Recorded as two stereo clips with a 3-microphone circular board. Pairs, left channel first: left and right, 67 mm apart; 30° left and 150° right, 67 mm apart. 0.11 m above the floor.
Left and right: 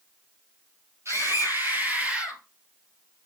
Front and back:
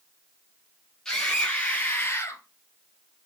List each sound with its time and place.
1.1 s a scream: 50° right, 3.5 m; by 2.4 s 10° right, 2.5 m